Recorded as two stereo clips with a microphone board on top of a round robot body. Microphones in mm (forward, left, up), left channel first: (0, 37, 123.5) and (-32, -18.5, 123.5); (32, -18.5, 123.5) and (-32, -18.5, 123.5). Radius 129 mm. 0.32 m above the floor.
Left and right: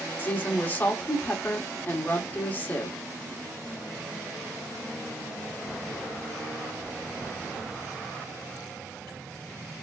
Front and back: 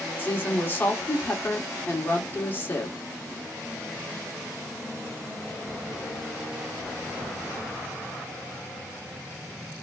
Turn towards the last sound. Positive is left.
turn(degrees=30)